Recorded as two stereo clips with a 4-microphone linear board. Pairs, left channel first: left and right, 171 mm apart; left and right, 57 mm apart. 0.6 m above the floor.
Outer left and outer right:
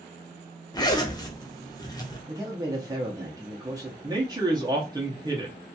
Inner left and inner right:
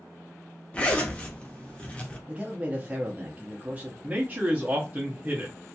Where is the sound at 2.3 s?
20° right (ahead or behind), 0.6 m.